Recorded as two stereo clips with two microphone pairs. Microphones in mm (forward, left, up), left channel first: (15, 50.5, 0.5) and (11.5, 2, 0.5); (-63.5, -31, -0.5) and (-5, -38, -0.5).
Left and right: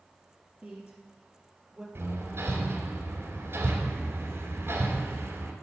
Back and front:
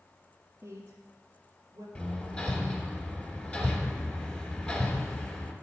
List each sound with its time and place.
0.6 s a woman speaking: 30° right, 2.0 m; by 1.9 s 5° right, 3 m
1.9 s hammering: 110° right, 2 m